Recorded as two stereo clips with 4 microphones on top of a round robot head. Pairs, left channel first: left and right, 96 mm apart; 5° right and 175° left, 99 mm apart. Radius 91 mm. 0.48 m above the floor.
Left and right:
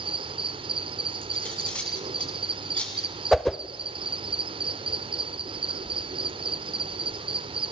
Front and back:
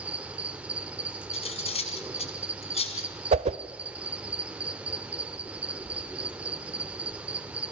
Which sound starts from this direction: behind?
A whoosh, at 3.3 s.